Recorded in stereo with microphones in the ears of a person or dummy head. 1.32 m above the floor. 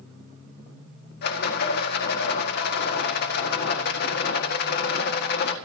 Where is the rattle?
55° left (ahead or behind), 1.8 m.